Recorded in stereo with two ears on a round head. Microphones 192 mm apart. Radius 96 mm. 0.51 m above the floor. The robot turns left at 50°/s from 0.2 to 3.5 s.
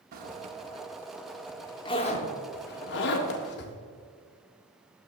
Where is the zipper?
40° right (ahead or behind), 0.7 m; by 3.8 s 50° left (ahead or behind), 0.7 m.